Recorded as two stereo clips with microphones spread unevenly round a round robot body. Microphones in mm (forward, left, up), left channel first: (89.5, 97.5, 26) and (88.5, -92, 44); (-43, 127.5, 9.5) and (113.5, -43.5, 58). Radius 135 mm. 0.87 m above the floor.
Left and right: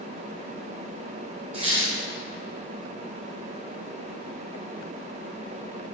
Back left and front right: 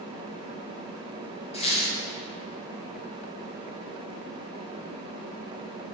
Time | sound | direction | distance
1.5 | a squeak | 155° right | 1.7 m